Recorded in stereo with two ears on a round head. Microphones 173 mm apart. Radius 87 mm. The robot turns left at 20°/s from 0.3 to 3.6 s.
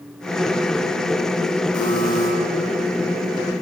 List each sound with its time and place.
1.7 s a buzzer: 45° left (ahead or behind), 9.5 m; by 2.3 s 55° left (ahead or behind), 9.5 m